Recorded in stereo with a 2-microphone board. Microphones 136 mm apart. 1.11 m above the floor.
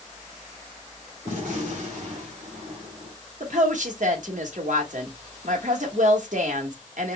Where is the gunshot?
70° right (ahead or behind), 2.5 m.